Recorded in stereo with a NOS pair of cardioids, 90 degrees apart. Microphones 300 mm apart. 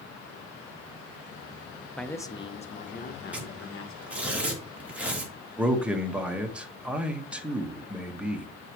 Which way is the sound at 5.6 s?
5° right.